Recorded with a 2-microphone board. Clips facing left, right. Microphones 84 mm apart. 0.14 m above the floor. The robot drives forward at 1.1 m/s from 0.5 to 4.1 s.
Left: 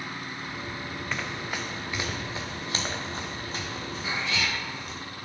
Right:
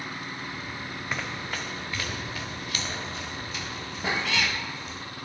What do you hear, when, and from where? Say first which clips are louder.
1.1 s running footsteps: even; 5° right (ahead or behind), 0.7 m; by 5.0 s 60° left (ahead or behind), 2 m
4.0 s a cat meowing: right 3 dB; 70° right (ahead or behind), 0.6 m